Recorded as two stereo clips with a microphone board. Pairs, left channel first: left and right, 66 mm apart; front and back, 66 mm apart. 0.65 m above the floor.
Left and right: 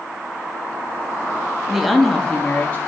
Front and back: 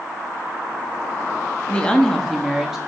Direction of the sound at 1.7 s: 25° right.